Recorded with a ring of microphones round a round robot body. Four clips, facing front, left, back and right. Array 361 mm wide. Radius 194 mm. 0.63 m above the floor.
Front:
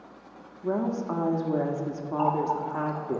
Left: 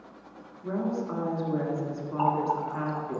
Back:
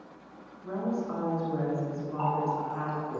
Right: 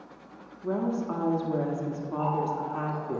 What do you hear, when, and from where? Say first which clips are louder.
0.6 s a woman speaking: right 1 dB, front 4 dB; 20° right, 1.4 m
2.2 s a running tap: left 3 dB, front 3 dB; 65° left, 1.7 m